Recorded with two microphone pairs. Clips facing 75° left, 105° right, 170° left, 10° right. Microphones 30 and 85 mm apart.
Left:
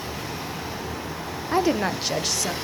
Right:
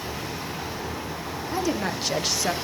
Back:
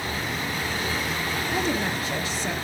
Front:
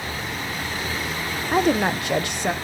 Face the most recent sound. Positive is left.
turn(degrees=-35)